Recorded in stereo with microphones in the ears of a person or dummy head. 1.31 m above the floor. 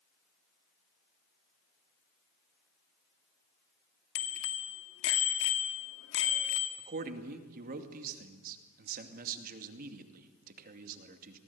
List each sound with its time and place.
4.2 s a bicycle bell: 75° left (ahead or behind), 2 m
6.8 s a man speaking: 50° right (ahead or behind), 2.5 m